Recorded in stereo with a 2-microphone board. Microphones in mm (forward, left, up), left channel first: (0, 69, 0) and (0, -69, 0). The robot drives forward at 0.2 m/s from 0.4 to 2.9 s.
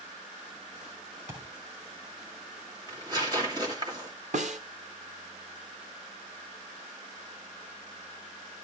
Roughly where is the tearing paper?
Right.